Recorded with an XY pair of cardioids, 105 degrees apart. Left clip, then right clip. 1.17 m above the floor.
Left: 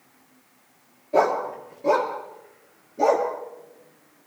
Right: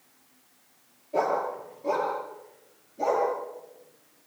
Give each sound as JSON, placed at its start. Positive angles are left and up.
{"t": 1.1, "sound": "a dog barking", "azimuth_deg": 70, "distance_m": 5.5}